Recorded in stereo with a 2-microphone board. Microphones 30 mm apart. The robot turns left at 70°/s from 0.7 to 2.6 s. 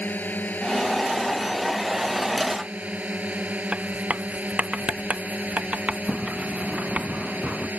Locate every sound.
0.0 s a drone: 75° left; by 7.8 s 60° right
3.7 s writing: 40° right (ahead or behind)
6.1 s a sliding door: 60° right (ahead or behind)